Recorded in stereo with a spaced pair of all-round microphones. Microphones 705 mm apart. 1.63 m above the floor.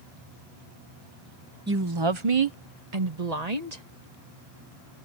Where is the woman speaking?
15° right (ahead or behind); by 3.8 s 70° right (ahead or behind).